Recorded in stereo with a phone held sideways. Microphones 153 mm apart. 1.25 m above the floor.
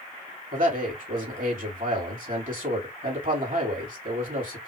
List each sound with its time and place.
0.5 s a man speaking: 60° right (ahead or behind), 2.5 m